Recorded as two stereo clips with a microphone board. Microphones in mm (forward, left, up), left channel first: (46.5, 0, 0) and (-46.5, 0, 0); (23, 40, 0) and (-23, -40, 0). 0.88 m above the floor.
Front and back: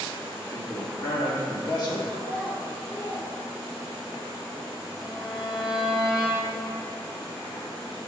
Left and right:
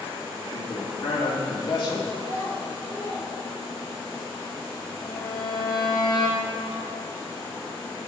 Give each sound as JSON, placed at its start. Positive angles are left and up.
{"t": 0.4, "sound": "a man speaking", "azimuth_deg": 35, "distance_m": 2.5}
{"t": 2.1, "sound": "a child speaking", "azimuth_deg": 70, "distance_m": 4.0}
{"t": 5.0, "sound": "a violin", "azimuth_deg": 95, "distance_m": 4.5}